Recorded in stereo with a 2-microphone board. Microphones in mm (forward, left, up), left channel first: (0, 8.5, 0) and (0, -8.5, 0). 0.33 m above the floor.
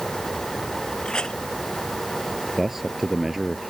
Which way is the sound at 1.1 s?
70° left (ahead or behind).